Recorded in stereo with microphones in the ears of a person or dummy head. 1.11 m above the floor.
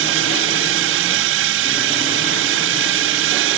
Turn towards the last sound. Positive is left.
turn(degrees=-60)  # may be behind; listen again after turning